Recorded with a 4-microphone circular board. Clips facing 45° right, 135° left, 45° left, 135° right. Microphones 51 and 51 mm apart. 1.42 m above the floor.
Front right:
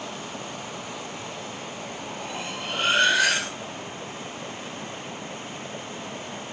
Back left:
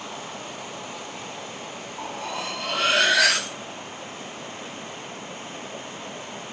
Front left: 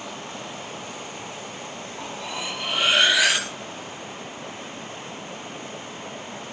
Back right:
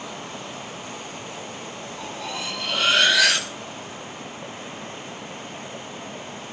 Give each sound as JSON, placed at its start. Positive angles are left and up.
{"t": 2.0, "sound": "cutlery clinking", "azimuth_deg": 120, "distance_m": 6.5}